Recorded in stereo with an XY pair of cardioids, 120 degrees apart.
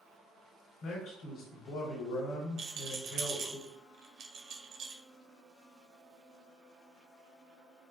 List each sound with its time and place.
0.8 s a man speaking: 70° left, 1.0 m
2.6 s a rattle: 60° right, 0.7 m